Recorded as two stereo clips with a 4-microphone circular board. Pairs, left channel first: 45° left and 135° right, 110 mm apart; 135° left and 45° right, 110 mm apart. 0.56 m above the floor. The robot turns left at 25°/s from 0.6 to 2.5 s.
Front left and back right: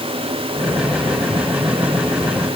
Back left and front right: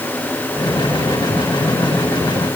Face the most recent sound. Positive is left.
No sound to turn to.